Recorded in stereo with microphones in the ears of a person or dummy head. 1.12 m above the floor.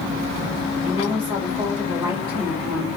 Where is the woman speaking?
15° right (ahead or behind), 1.3 m.